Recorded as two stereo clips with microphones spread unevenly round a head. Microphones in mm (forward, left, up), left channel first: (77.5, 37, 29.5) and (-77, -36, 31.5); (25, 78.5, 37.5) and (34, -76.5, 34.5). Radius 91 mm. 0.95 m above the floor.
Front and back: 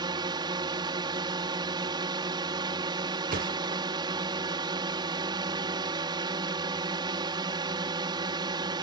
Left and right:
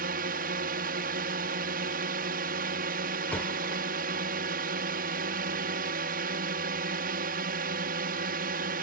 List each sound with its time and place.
0.0 s a drone: 95° right
3.3 s a thud: 175° left